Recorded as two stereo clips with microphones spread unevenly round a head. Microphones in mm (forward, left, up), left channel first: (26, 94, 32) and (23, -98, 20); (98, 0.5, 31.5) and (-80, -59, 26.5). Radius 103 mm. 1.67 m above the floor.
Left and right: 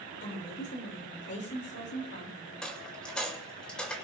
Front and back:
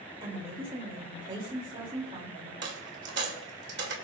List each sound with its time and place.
0.2 s a woman speaking: 130° left, 3.5 m
2.6 s a dropped coin: 170° left, 2 m